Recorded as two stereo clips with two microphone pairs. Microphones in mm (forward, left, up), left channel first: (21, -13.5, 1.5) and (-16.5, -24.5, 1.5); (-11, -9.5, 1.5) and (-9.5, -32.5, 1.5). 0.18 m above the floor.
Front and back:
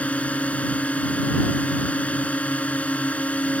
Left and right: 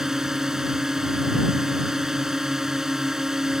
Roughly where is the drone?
Ahead right.